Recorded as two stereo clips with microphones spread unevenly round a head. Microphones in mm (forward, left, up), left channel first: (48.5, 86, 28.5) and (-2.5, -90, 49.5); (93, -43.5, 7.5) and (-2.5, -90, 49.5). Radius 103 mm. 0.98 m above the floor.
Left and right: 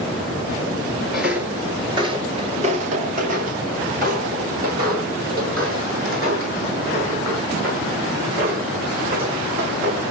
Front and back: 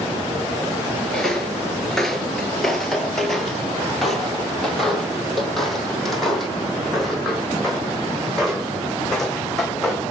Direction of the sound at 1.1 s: 170° right.